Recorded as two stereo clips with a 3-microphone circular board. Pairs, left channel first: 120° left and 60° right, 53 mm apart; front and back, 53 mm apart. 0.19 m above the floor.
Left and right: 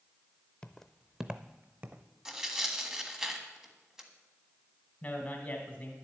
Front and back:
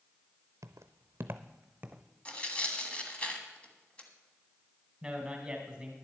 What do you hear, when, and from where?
0.6 s footsteps: 170° right, 0.6 m; by 2.0 s 110° right, 1.0 m
2.2 s tearing paper: 5° left, 1.4 m
5.0 s a man speaking: 125° left, 1.7 m